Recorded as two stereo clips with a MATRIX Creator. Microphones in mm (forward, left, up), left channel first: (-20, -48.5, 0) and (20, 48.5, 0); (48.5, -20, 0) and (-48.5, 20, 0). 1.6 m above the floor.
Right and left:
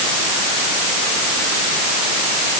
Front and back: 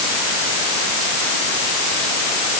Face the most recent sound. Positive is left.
No sound to turn to.